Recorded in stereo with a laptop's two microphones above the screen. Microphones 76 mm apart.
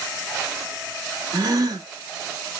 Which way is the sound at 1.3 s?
50° right (ahead or behind).